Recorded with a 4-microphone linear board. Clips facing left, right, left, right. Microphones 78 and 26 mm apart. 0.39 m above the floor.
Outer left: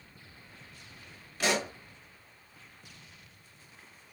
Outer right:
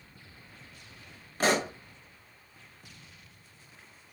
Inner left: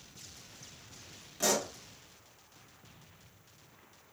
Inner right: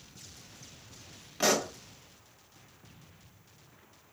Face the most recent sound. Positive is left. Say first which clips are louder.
# outer right 4 dB, inner right 4 dB
turn(degrees=-40)  # may be behind; listen again after turning